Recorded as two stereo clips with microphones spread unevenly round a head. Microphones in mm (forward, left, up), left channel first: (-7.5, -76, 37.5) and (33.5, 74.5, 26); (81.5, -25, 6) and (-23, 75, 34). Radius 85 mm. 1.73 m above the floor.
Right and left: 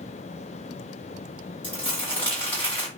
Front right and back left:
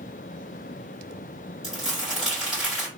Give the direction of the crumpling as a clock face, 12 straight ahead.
6 o'clock.